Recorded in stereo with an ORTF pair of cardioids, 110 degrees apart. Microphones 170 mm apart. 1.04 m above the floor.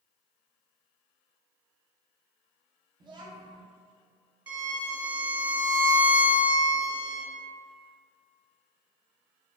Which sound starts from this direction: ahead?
A violin, at 4.5 s.